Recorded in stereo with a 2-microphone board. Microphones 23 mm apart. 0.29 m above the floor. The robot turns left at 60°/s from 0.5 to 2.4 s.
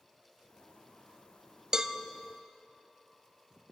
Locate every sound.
1.7 s a cowbell: 30° right (ahead or behind), 0.6 m; by 2.0 s 20° right (ahead or behind), 0.6 m